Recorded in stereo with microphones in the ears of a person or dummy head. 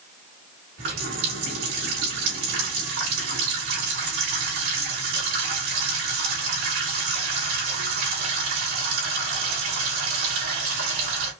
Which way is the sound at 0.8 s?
70° right (ahead or behind).